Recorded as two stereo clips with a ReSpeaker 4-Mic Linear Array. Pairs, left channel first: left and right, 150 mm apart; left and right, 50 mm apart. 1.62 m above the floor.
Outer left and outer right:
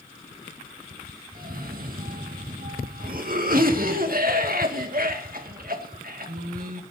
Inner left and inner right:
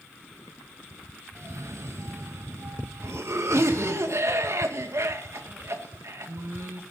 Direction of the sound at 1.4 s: 75° right (ahead or behind).